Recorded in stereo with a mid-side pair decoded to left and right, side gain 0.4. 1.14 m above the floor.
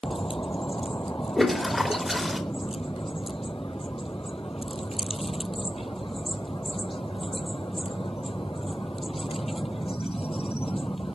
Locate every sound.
1.4 s a toilet flushing: 20° left, 4.5 m